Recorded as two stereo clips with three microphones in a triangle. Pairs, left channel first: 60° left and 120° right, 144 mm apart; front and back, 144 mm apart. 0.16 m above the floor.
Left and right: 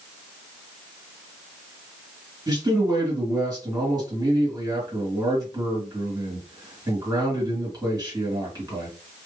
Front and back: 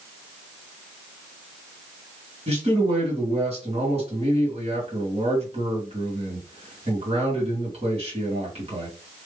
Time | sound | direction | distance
2.5 | a man speaking | 170° right | 2.5 m